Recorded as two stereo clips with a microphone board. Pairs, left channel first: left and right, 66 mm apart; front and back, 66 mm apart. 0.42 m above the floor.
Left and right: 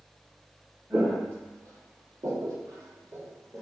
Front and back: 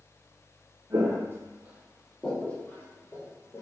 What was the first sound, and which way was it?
Footsteps, 145° right.